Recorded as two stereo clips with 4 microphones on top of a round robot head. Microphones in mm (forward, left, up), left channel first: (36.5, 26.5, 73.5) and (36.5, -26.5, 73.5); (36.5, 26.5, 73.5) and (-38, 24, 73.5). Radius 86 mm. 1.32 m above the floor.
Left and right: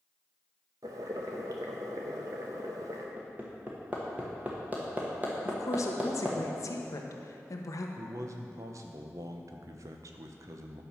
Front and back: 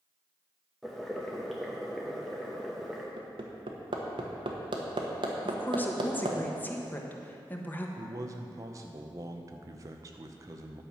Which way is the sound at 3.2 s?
155° right.